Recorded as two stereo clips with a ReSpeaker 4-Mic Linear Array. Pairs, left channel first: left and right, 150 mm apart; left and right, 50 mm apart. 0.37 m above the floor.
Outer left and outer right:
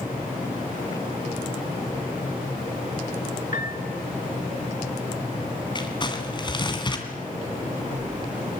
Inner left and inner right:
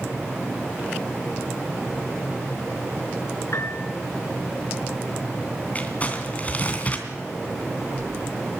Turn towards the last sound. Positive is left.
turn(degrees=30)  # may be behind; listen again after turning